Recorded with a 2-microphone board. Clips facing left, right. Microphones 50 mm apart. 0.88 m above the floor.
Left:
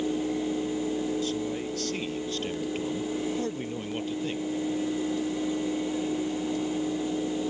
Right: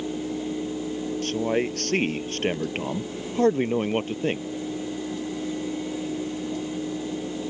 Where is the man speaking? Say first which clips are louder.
Right 6 dB; 55° right (ahead or behind); by 4.5 s 45° right (ahead or behind).